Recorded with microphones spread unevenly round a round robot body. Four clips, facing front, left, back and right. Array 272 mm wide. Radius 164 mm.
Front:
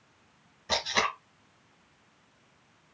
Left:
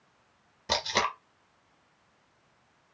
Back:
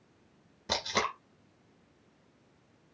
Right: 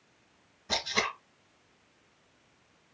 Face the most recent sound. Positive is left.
turn(degrees=150)